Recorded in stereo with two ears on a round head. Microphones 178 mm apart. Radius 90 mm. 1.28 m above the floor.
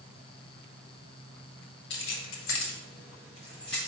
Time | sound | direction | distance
1.9 | keys jangling | 65° left (ahead or behind) | 1.1 m